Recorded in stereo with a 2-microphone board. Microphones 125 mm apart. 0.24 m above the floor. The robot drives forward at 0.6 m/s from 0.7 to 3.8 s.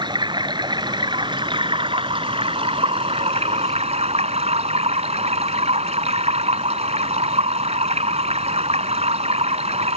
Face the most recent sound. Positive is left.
turn(degrees=-60)  # may be behind; listen again after turning